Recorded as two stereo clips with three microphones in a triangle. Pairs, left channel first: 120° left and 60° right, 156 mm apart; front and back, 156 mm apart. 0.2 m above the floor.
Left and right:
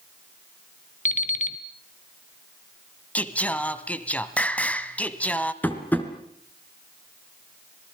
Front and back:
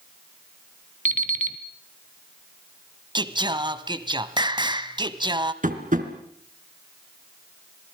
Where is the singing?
170° right, 1.2 m.